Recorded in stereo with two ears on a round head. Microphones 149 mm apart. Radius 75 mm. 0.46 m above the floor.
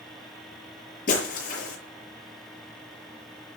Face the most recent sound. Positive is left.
turn(degrees=50)  # may be behind; listen again after turning